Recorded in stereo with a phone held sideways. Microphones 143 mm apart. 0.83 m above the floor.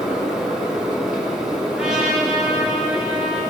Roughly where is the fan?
Centre.